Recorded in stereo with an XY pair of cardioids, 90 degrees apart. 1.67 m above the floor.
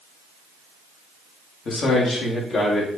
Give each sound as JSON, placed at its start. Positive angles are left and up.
{"t": 1.6, "sound": "a man speaking", "azimuth_deg": 55, "distance_m": 2.5}